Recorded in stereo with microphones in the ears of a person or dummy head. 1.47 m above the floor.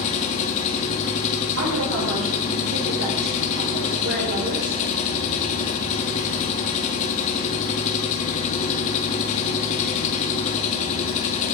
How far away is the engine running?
About 1.6 m.